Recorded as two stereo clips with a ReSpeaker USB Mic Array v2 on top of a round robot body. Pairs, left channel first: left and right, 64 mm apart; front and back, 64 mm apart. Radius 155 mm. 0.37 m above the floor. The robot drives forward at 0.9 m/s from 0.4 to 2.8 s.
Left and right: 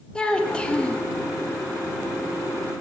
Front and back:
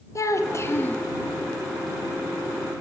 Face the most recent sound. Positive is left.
turn(degrees=170)